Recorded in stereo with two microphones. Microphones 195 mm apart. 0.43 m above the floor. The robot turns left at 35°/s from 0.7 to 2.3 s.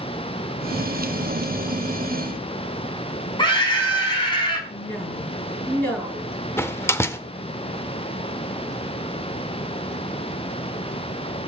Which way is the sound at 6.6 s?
10° left (ahead or behind).